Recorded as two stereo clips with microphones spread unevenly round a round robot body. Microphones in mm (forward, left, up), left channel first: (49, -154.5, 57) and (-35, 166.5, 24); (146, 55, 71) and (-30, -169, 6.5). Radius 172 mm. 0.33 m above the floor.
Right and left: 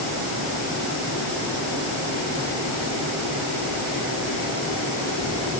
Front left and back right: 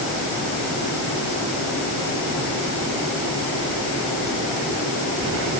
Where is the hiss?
I don't hear a hiss.